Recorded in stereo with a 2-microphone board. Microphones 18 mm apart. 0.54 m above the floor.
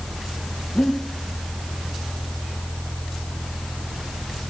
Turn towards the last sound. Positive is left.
turn(degrees=65)  # may be behind; listen again after turning